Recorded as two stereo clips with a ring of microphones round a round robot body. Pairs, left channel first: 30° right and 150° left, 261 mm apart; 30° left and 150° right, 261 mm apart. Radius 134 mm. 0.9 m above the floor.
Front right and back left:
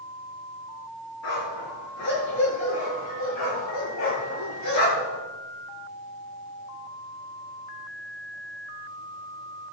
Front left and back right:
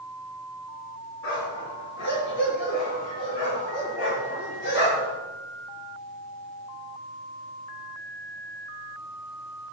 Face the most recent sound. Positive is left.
turn(degrees=-5)